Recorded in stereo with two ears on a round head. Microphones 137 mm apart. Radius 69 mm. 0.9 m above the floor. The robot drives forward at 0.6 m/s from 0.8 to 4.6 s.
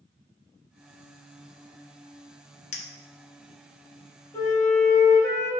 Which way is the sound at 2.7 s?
50° left (ahead or behind).